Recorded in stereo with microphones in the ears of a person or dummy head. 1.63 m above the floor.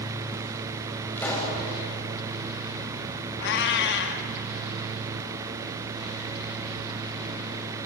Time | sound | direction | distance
1.2 | a pop | 15° left (ahead or behind) | 6.5 m
3.4 | a cat meowing | 60° left (ahead or behind) | 1.6 m